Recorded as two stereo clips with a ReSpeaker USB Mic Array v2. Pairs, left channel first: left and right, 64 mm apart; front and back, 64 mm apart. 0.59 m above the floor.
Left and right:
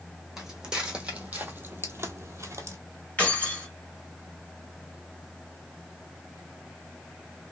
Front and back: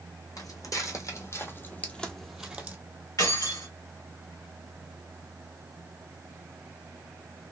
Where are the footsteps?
5° right, 1.4 m; by 2.8 s 115° right, 0.9 m.